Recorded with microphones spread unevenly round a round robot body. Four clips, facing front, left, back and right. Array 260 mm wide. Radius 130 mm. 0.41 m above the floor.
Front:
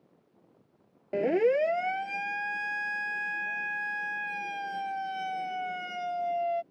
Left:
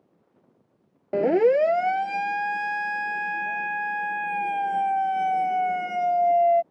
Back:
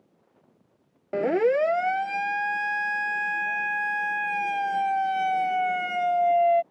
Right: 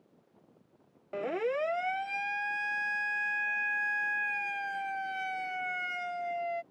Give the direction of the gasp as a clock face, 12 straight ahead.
No gasp in this recording.